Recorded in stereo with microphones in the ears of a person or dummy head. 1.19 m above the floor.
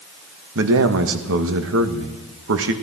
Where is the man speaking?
70° right (ahead or behind), 1.6 m.